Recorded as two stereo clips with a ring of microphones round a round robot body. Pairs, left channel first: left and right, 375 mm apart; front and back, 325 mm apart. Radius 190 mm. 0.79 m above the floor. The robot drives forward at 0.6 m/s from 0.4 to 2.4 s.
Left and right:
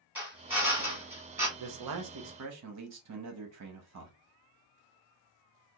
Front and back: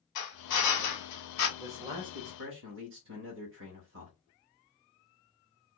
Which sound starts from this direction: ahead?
A drill, at 0.1 s.